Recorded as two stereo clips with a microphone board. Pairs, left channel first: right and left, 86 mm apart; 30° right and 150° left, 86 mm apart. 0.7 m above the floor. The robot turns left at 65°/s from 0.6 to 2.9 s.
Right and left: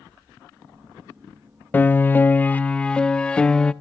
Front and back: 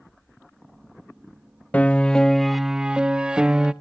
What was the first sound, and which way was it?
A piano, 70° right.